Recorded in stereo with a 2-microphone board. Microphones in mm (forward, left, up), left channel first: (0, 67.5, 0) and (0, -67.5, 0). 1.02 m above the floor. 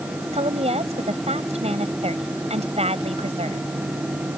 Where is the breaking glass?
I don't hear breaking glass.